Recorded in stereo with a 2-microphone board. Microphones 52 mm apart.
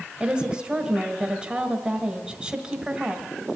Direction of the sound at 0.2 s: 15° right (ahead or behind).